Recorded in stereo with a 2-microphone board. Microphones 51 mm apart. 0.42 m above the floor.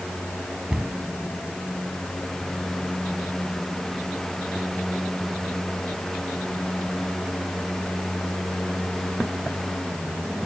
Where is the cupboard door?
15° right (ahead or behind), 4 m.